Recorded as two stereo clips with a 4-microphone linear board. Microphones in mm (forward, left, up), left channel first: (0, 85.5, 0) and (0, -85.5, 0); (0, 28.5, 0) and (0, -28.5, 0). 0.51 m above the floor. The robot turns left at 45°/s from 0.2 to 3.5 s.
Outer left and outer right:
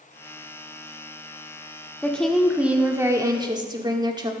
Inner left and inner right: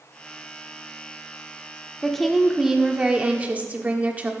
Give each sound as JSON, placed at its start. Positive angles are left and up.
{"t": 2.0, "sound": "a woman speaking", "azimuth_deg": 15, "distance_m": 1.4}